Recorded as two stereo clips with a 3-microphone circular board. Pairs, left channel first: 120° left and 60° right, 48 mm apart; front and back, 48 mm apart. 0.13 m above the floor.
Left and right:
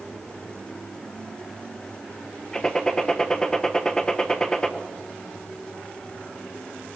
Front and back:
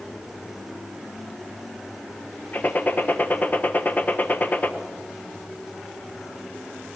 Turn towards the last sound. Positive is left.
turn(degrees=45)